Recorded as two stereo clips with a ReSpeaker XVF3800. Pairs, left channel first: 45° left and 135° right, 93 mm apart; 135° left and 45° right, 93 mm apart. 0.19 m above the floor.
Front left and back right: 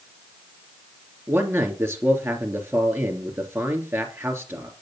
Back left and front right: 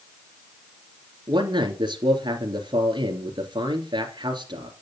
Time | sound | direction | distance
1.3 | a man speaking | 75° right | 3 m